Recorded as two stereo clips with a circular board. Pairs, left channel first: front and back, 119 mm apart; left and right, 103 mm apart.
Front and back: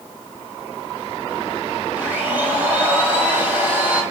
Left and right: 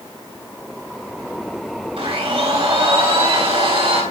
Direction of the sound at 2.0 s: 105° right.